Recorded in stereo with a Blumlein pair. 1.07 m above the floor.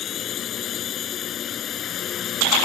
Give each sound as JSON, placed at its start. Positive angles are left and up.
{"t": 0.0, "sound": "a drone", "azimuth_deg": 30}